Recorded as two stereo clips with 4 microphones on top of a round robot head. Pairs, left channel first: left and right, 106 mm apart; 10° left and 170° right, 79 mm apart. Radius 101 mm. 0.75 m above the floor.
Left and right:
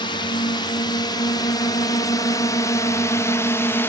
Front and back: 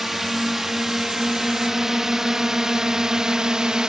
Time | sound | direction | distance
0.0 | a drone | 105° left | ?